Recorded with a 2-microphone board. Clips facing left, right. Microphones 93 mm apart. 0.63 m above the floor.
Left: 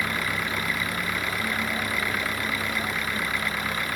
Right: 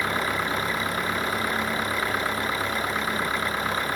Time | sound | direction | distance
0.0 | an engine running | 30° right (ahead or behind) | ?